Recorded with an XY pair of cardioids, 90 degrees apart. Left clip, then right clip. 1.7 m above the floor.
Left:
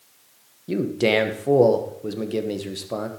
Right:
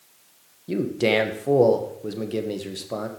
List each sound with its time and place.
0.7 s a man speaking: 10° left, 1.4 m